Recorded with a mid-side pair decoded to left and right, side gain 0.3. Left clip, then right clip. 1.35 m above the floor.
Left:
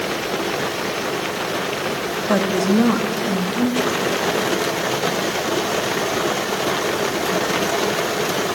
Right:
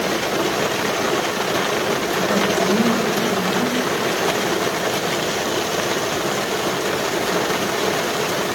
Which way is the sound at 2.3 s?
65° left.